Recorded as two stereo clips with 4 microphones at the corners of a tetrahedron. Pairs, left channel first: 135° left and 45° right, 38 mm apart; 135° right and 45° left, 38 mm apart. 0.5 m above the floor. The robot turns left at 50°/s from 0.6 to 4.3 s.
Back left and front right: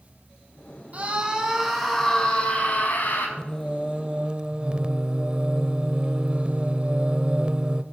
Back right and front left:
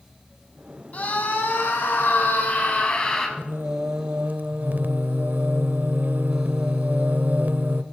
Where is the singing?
65° left, 0.7 m; by 7.8 s 20° left, 0.7 m.